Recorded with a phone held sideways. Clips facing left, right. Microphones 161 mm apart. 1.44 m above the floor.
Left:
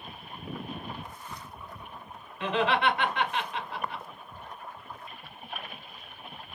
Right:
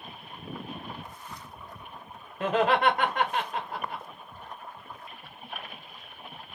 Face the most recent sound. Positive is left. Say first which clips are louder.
# right 3 dB
turn(degrees=-45)  # may be behind; listen again after turning